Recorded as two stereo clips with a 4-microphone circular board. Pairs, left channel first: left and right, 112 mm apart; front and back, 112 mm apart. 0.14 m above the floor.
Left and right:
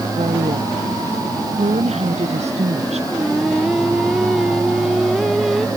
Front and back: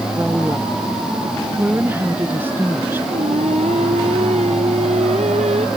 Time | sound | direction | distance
0.1 | a woman speaking | 110° right | ?
3.1 | singing | straight behind | ?